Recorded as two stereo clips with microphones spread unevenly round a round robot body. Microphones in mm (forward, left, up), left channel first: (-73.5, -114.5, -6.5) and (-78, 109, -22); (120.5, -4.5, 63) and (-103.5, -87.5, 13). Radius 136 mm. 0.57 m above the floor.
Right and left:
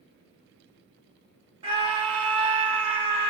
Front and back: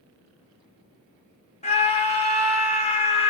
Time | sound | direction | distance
1.6 | a scream | 80° left | 1.2 m